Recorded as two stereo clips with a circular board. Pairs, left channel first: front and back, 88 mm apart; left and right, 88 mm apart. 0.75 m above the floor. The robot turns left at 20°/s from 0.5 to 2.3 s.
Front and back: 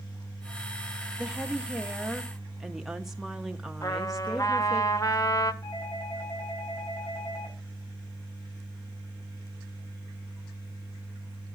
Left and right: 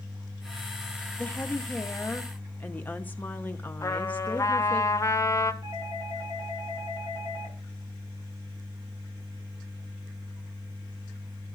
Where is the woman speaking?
120° left, 0.7 m; by 4.8 s 100° left, 0.7 m.